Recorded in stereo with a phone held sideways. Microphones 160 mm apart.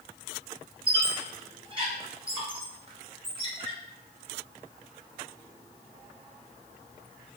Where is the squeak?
35° right (ahead or behind), 0.9 m.